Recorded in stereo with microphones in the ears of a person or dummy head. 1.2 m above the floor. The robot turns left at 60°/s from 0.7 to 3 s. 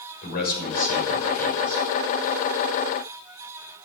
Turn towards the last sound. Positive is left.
turn(degrees=-90)